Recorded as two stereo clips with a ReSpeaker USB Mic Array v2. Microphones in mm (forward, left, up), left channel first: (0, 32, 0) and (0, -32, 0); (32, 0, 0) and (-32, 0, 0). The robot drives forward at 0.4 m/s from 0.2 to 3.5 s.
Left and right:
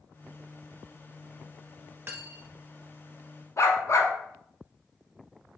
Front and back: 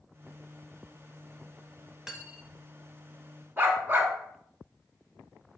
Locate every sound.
2.1 s cutlery clinking: 105° right, 0.6 m; by 2.6 s 130° right, 0.7 m
3.6 s a dog barking: 125° left, 0.5 m